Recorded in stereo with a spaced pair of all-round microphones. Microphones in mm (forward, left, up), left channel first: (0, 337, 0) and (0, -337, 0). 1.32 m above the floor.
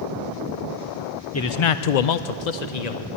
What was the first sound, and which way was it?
A man speaking, 20° left (ahead or behind).